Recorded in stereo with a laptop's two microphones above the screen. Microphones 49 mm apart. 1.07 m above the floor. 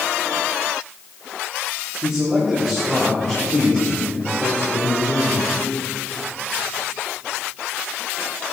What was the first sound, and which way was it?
A man speaking, 15° right (ahead or behind).